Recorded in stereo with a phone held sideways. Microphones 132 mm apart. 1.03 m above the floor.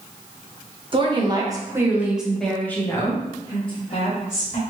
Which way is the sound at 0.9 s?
40° right (ahead or behind).